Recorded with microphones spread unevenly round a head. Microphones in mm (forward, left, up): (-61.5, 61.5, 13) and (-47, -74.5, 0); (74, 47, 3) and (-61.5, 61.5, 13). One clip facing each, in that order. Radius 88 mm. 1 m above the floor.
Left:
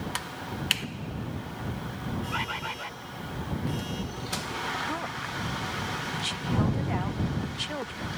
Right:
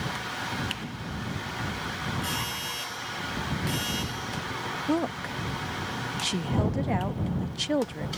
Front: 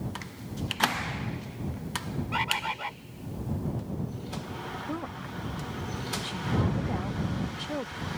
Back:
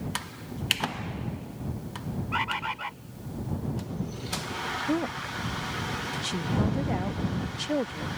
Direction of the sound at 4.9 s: 125° right.